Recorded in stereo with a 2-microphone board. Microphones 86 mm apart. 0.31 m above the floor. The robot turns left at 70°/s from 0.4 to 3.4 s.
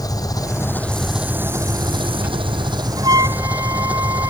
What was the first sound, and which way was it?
An engine running, 45° left.